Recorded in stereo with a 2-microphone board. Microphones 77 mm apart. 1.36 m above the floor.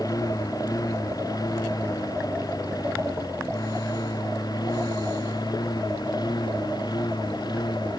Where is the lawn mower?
55° left (ahead or behind); by 8.0 s 65° left (ahead or behind).